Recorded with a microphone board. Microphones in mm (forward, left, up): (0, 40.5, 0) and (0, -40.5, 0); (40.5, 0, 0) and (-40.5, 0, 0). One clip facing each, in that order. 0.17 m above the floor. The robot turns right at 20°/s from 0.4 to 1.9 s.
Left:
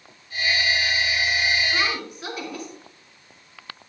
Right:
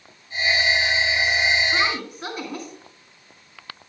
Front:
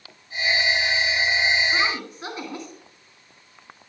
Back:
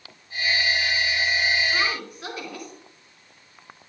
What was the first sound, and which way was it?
A woman speaking, 55° right.